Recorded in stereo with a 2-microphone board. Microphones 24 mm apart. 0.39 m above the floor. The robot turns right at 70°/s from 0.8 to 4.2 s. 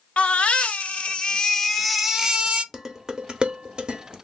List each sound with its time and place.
0.2 s a baby crying: 110° left, 0.6 m; by 2.6 s 125° right, 0.6 m
2.7 s dishes clattering: 15° right (ahead or behind), 0.7 m; by 4.1 s 35° right (ahead or behind), 0.7 m